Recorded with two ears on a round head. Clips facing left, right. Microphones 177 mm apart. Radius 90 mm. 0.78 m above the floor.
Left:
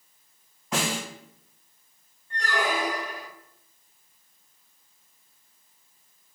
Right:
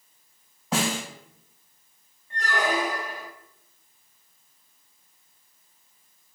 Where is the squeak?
5° right (ahead or behind), 0.9 m.